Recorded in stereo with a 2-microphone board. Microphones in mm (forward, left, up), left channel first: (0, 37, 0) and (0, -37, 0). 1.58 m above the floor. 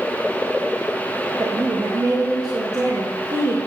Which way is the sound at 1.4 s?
55° right (ahead or behind).